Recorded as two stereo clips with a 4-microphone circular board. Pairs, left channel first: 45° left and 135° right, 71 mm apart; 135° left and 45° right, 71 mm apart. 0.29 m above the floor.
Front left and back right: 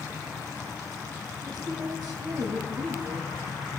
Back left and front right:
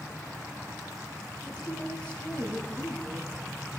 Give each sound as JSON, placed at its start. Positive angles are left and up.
{"t": 1.5, "sound": "a woman speaking", "azimuth_deg": -155, "distance_m": 6.5}